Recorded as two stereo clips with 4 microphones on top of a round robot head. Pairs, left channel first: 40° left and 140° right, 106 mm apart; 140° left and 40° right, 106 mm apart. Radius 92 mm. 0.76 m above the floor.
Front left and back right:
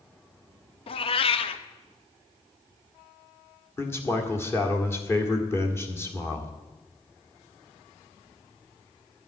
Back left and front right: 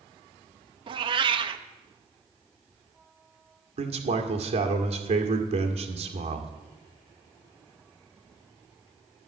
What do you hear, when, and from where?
0.9 s a cat meowing: 5° left, 0.6 m
3.8 s a man speaking: 25° right, 1.8 m